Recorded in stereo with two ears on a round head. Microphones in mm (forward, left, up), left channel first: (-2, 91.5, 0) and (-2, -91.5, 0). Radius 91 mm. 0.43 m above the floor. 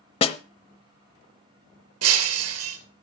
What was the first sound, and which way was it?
A snare drum, 30° left (ahead or behind).